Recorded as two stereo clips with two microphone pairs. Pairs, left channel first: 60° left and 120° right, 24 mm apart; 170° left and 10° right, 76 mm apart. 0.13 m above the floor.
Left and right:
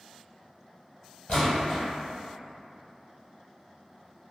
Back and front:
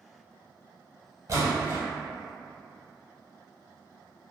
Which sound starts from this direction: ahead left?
A splash, at 1.3 s.